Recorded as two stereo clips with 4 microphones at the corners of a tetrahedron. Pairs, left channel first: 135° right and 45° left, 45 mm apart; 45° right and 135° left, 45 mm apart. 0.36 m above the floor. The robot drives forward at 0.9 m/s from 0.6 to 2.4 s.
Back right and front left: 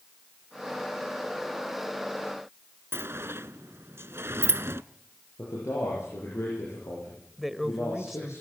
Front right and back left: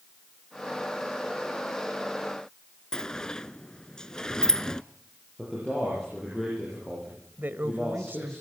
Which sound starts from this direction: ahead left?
A sliding door, at 2.9 s.